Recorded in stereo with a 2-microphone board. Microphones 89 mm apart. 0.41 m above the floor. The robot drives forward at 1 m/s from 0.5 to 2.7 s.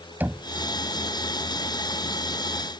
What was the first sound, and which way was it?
Knocking, 20° right (ahead or behind).